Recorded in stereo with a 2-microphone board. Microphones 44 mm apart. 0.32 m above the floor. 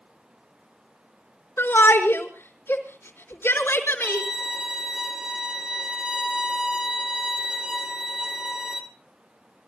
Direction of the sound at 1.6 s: 60° left (ahead or behind).